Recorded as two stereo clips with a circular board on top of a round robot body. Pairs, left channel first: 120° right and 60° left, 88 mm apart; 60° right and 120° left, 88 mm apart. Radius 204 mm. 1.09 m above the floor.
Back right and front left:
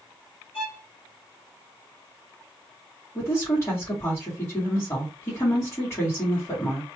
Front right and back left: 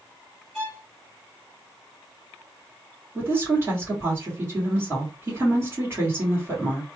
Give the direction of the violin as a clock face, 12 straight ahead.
5 o'clock.